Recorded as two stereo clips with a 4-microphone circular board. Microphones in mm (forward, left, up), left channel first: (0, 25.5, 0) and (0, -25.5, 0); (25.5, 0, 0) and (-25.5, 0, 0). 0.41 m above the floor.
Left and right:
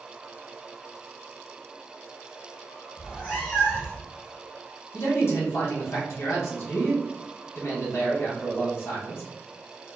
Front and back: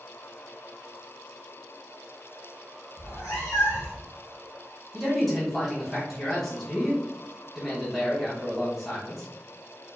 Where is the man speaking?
80° left, 1.3 m.